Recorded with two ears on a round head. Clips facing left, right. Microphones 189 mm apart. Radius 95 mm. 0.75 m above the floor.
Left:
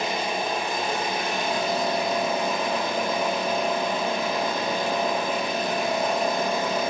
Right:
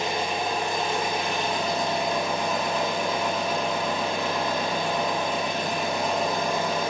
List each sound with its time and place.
0.0 s an engine running: 5° left (ahead or behind), 1.4 m